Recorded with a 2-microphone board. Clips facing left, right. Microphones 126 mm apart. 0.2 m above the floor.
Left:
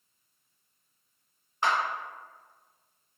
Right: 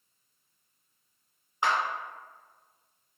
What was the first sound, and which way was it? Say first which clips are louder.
A clap: even; 15° right (ahead or behind).